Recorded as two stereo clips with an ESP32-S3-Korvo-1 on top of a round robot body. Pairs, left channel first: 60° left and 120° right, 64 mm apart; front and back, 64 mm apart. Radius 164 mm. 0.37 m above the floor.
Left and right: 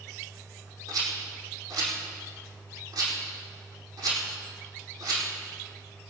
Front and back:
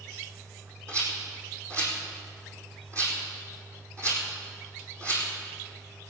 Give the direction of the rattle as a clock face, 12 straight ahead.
5 o'clock.